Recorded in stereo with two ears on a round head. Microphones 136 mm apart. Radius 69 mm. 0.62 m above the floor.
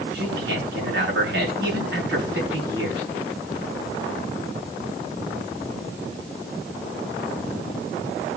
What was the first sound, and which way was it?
A man speaking, 75° right (ahead or behind).